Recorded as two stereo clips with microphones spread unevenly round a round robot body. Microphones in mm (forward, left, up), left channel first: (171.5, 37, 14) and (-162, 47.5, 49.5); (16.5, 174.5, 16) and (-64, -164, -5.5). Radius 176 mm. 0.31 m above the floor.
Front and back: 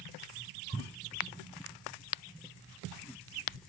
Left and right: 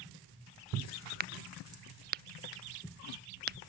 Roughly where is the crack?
Ahead right.